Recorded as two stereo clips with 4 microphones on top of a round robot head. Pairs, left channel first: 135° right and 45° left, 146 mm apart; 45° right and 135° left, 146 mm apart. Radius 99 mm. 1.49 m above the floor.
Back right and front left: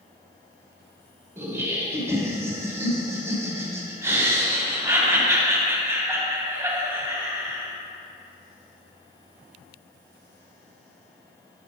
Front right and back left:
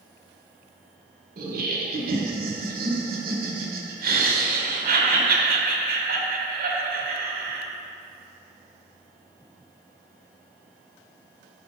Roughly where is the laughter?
Behind left.